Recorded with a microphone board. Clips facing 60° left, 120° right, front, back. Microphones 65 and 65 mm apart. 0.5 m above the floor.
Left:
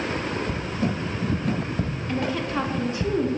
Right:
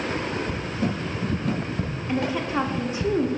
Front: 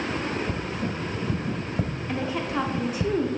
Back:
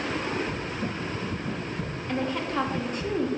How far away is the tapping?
About 1.0 m.